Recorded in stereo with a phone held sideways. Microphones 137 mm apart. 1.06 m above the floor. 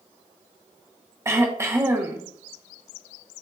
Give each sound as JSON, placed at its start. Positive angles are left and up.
{"t": 1.2, "sound": "throat clearing", "side_deg": -20, "distance_m": 0.8}